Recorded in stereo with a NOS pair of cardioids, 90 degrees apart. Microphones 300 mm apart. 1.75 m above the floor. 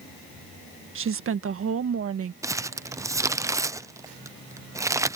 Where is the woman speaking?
45° right; by 2.3 s 50° right.